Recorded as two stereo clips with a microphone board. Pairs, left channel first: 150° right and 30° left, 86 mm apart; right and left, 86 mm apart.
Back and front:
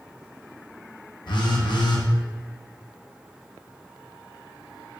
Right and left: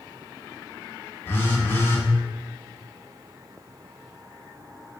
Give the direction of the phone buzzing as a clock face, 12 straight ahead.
5 o'clock.